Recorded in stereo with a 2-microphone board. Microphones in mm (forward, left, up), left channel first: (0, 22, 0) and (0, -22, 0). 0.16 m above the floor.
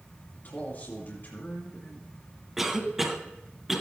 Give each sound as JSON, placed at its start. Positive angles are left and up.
{"t": 0.3, "sound": "a man speaking", "side_deg": 45, "distance_m": 2.0}
{"t": 2.6, "sound": "a cough", "side_deg": -10, "distance_m": 1.2}